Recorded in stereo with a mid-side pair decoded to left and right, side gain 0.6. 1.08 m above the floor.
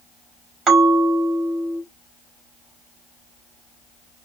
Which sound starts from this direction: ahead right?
A bell, at 0.7 s.